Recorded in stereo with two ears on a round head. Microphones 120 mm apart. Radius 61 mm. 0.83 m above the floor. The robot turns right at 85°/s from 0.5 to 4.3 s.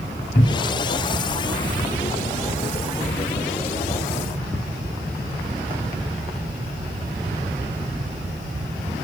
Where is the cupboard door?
85° left, 0.9 m; by 0.9 s 60° left (ahead or behind), 0.9 m.